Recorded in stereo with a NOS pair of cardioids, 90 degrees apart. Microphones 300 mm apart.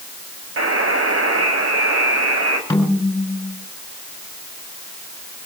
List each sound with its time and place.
0.6 s a buzzer: 45° right, 7 m
2.7 s a snare drum: 10° left, 7 m